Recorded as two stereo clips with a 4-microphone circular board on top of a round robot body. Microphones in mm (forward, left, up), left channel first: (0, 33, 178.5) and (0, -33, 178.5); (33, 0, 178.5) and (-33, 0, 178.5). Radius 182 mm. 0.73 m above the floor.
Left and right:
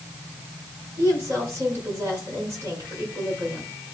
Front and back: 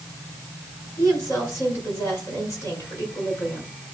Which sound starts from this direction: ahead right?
A woman speaking, at 1.0 s.